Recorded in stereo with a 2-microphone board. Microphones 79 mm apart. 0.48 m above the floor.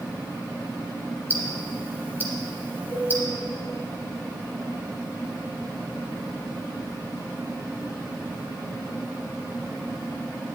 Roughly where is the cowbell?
Left.